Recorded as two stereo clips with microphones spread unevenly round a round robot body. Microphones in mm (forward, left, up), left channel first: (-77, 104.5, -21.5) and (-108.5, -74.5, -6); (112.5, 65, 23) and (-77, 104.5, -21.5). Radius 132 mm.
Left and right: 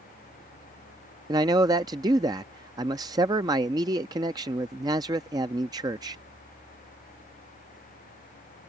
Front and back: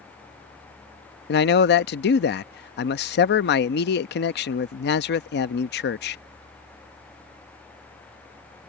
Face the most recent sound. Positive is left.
turn(degrees=-30)